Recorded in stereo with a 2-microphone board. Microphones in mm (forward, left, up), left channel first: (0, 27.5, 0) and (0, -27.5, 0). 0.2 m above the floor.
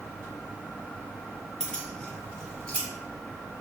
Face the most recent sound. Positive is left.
turn(degrees=25)  # may be behind; listen again after turning